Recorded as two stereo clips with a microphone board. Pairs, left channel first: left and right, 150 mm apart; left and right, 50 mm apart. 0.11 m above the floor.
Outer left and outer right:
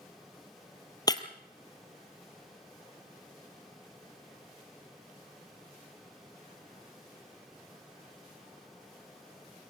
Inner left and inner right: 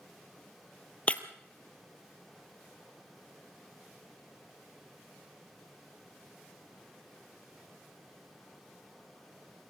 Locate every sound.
1.1 s breaking glass: 25° left (ahead or behind), 1.4 m